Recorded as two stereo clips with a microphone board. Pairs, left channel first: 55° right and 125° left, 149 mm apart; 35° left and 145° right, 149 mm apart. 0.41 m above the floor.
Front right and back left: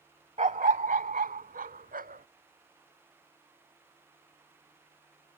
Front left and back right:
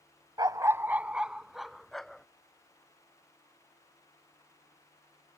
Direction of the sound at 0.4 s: 155° left.